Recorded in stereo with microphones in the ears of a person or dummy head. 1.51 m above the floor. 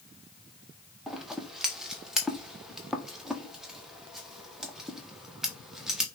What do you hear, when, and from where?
1.1 s scissors: centre (ahead or behind), 0.6 m